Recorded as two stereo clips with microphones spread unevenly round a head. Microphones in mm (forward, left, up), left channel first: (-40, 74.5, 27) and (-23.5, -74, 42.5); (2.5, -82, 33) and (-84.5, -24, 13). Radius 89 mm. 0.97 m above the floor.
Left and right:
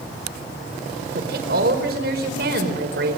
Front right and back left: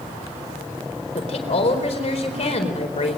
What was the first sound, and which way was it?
A woman speaking, 55° right.